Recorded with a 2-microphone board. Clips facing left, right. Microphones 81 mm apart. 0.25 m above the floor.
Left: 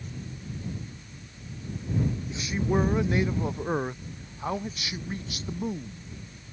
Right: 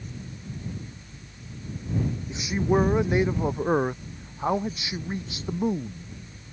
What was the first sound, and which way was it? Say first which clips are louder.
A man speaking: right 6 dB; 20° right (ahead or behind).